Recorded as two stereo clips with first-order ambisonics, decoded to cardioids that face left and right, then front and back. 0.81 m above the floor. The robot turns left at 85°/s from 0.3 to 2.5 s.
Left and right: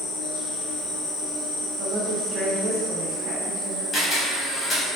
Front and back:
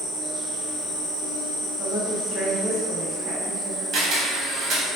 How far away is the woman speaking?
About 0.6 m.